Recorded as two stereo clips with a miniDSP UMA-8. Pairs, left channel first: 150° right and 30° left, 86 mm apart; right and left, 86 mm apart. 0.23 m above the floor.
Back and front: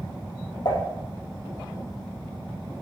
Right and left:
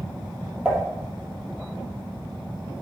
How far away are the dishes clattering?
About 5 m.